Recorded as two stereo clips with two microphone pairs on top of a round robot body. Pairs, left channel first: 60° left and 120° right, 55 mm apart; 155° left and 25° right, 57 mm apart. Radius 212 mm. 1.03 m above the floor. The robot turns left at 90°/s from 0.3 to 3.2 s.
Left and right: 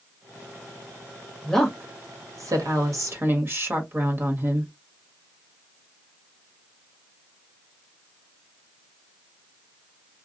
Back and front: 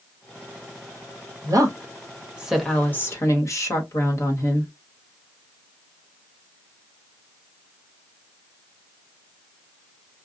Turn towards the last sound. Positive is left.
turn(degrees=-165)